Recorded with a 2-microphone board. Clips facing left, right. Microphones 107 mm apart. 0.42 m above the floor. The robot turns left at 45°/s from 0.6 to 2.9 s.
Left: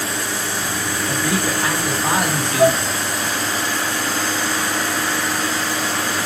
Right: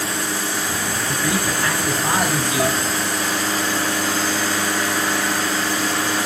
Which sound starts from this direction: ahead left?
A man speaking, at 1.1 s.